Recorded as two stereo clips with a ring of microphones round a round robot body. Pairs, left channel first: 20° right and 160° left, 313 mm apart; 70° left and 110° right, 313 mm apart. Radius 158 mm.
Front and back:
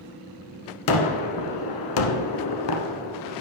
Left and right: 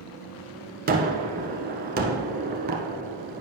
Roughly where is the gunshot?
Ahead right.